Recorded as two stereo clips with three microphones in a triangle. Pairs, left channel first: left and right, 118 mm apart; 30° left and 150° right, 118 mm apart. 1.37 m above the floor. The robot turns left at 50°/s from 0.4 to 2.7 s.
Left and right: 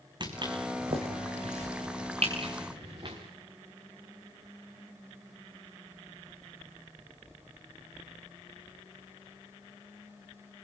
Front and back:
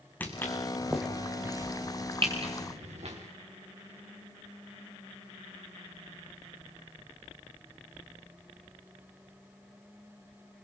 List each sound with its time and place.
0.2 s footsteps: 45° right, 4 m; by 3.1 s 130° right, 6 m